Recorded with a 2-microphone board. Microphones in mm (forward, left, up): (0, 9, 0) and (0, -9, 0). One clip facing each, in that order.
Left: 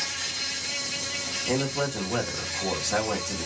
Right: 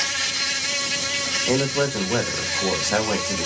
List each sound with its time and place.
0.0 s an insect: 75° right (ahead or behind), 0.7 m
1.5 s a man speaking: 75° right (ahead or behind), 1.8 m